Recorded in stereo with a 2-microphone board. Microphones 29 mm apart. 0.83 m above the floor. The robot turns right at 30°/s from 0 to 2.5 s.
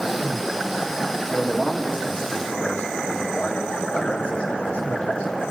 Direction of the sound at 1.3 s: 15° left.